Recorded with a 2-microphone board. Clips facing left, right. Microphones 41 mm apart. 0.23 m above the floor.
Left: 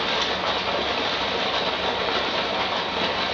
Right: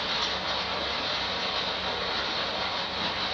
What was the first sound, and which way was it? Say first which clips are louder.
Running water: left 6 dB; 75° left (ahead or behind).